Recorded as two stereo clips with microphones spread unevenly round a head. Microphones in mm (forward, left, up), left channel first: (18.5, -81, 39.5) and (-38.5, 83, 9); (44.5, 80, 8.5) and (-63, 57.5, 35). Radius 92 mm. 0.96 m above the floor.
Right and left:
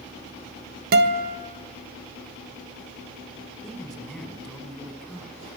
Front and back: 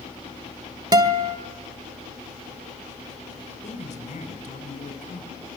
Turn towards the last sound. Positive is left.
turn(degrees=20)